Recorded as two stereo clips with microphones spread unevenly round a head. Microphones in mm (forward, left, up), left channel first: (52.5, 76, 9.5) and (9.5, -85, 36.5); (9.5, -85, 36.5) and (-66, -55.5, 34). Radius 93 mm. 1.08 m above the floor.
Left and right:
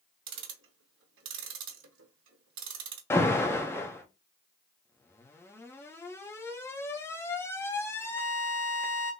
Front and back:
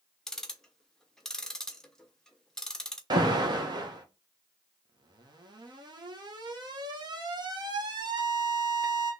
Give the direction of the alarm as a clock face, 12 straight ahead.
7 o'clock.